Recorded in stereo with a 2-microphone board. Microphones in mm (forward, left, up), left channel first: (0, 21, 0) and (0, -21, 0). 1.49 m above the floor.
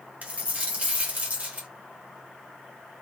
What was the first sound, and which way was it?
A dropped coin, 35° right (ahead or behind).